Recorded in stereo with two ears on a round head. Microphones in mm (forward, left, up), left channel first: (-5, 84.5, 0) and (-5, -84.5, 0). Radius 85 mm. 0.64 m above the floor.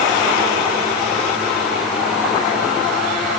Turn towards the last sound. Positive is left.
No sound to turn to.